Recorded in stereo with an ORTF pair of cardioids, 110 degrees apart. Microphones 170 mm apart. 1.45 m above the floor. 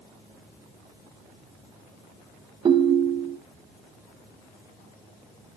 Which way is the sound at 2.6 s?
30° right.